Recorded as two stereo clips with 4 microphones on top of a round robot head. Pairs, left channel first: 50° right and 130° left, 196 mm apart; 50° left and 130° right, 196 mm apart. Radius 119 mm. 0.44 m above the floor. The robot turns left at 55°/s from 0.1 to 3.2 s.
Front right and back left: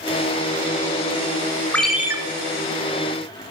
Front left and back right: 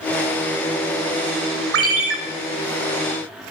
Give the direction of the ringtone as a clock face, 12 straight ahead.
4 o'clock.